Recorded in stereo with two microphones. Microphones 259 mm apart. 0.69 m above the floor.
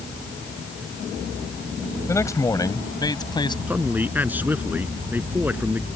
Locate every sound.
2.1 s a man speaking: 10° left (ahead or behind); by 3.6 s 15° left (ahead or behind)
3.7 s a man speaking: 5° right (ahead or behind)